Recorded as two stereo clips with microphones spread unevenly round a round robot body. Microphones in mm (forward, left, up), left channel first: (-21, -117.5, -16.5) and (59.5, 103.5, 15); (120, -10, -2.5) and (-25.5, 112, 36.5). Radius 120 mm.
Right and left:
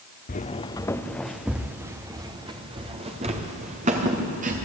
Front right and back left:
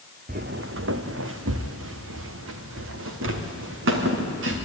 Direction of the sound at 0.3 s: 170° right.